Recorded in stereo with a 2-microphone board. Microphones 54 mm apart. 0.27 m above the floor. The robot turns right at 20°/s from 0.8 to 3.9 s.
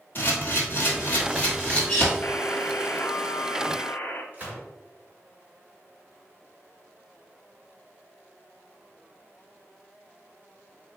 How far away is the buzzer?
About 0.5 m.